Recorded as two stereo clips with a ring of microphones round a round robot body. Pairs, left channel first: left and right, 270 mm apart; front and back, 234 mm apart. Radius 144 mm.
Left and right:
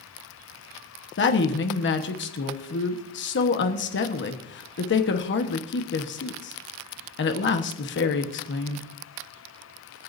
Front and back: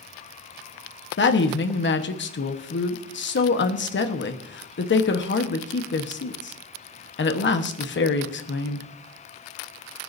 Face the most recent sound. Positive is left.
turn(degrees=40)